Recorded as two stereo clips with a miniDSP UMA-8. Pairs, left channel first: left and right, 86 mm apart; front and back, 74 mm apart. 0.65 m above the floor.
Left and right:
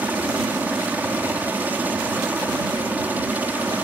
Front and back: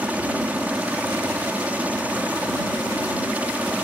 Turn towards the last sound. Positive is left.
turn(degrees=-135)